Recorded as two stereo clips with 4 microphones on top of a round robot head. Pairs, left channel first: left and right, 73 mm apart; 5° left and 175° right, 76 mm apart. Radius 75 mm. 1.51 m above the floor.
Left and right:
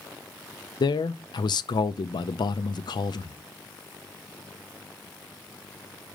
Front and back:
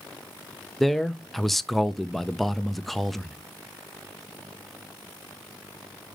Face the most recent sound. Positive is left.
turn(degrees=90)